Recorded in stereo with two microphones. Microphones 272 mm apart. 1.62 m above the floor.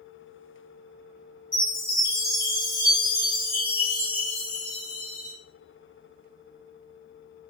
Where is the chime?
35° left (ahead or behind), 1.9 m.